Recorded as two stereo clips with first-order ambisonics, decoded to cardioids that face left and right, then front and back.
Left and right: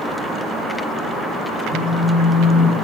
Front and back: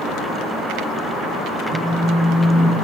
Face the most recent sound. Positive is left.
turn(degrees=-125)